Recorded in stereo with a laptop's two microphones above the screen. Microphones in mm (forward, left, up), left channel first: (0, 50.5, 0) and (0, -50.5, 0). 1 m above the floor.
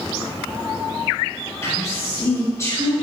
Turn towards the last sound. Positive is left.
turn(degrees=30)  # may be behind; listen again after turning